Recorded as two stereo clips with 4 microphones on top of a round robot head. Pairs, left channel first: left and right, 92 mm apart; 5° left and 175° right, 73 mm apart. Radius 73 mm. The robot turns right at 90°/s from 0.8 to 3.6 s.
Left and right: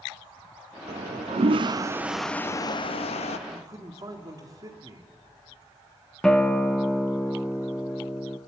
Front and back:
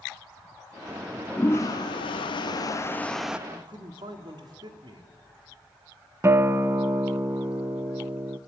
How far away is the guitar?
About 1.0 m.